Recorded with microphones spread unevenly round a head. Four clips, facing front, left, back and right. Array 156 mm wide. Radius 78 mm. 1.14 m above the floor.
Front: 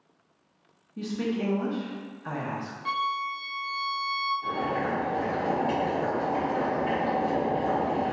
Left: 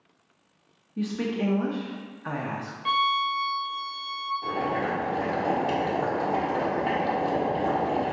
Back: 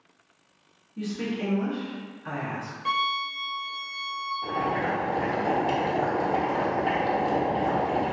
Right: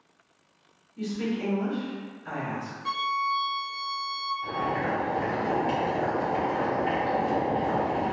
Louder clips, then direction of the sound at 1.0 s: Left 2 dB, front 1 dB; 75° left.